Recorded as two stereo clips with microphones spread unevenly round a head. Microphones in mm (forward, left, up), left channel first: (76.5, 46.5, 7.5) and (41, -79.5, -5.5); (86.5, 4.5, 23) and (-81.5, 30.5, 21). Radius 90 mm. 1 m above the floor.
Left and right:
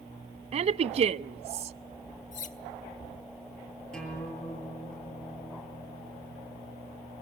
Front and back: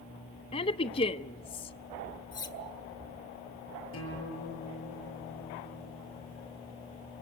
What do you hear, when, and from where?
0.5 s a woman speaking: 70° right, 0.6 m
2.3 s cutlery clinking: 60° left, 1.3 m
3.9 s a guitar: 10° right, 7.5 m